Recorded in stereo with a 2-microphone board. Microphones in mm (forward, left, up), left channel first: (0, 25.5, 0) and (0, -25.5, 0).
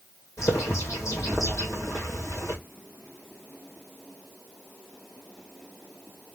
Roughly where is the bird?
Left.